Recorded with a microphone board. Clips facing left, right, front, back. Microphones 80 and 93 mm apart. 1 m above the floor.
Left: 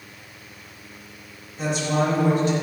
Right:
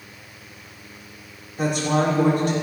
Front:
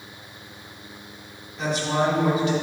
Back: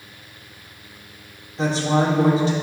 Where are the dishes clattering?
I don't hear dishes clattering.